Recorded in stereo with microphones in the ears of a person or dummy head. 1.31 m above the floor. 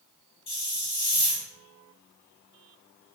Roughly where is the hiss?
Left.